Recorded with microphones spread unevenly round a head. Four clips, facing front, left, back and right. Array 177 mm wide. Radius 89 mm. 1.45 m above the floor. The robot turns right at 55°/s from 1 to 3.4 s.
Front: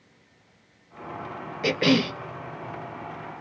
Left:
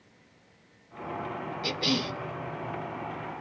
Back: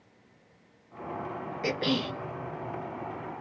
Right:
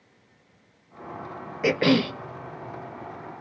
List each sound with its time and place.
1.6 s a cough: 65° right, 0.6 m; by 2.1 s 40° right, 0.6 m